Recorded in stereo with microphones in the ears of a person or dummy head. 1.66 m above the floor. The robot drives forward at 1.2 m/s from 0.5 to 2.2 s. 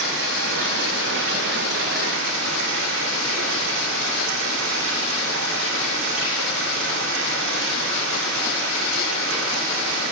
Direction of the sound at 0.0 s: 85° right.